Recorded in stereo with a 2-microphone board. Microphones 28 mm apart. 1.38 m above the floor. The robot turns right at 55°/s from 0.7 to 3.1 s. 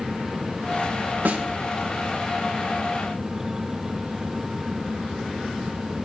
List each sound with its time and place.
1.2 s a snare drum: 75° right (ahead or behind), 1.8 m; by 1.4 s 70° right (ahead or behind), 1.8 m